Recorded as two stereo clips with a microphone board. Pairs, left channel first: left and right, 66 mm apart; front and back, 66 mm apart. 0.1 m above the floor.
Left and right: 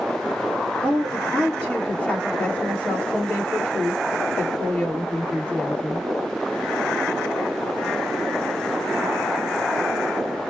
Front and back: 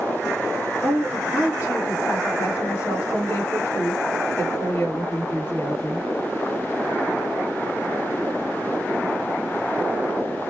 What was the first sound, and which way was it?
A woman speaking, 30° left.